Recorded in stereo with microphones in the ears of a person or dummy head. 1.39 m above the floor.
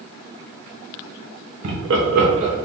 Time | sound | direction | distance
1.6 | laughter | 80° right | 1.6 m